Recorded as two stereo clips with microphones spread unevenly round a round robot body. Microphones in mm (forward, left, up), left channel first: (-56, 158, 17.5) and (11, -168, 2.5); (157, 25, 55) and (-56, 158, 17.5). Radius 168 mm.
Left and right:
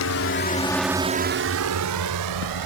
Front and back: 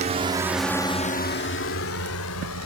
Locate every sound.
0.0 s a drone: 110° left; by 2.7 s 65° right